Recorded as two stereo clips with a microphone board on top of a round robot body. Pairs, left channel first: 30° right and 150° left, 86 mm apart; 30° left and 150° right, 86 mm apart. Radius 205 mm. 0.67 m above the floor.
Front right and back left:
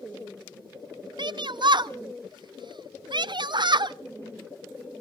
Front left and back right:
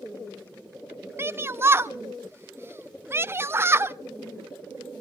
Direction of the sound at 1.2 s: 150° left.